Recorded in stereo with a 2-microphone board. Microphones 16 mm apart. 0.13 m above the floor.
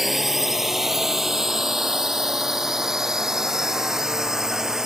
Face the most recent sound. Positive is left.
turn(degrees=-40)  # may be behind; listen again after turning